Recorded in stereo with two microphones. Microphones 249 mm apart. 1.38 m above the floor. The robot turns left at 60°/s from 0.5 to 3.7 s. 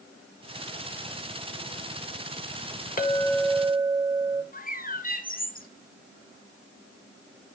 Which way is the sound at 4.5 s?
35° left (ahead or behind).